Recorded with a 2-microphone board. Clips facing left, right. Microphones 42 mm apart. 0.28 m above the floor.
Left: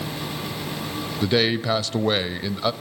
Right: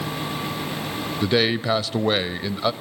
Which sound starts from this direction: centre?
A man speaking, at 1.2 s.